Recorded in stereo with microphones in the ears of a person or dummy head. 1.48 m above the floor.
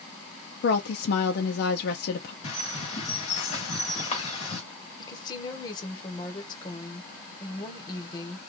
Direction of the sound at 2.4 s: 40° left (ahead or behind).